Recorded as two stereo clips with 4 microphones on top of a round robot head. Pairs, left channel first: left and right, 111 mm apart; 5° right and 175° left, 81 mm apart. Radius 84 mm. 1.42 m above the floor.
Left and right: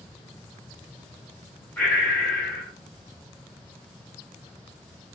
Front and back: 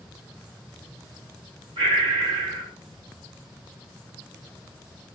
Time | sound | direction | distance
1.8 | breathing | 165° left | 1.7 m